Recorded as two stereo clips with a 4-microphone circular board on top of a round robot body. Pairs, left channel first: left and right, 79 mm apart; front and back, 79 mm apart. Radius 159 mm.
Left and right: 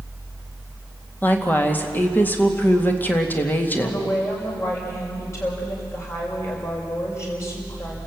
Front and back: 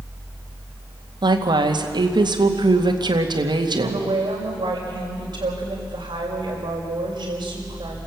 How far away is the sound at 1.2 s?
About 2.5 m.